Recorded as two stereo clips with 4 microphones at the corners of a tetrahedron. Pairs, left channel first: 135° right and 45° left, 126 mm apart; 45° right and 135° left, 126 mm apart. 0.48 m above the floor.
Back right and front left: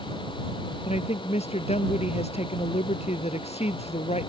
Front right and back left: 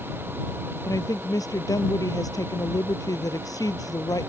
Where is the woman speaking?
105° right.